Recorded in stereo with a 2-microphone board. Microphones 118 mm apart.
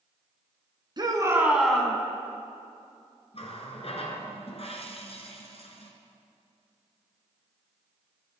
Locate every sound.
1.0 s a shout: 40° right (ahead or behind), 1.7 m; by 2.0 s 20° left (ahead or behind), 1.3 m
3.3 s a running tap: 60° left (ahead or behind), 1.4 m